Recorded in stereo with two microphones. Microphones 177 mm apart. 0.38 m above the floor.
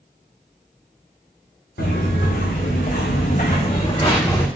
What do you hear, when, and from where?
1.8 s footsteps: 75° left (ahead or behind), 1.4 m; by 4.5 s 10° left (ahead or behind), 0.9 m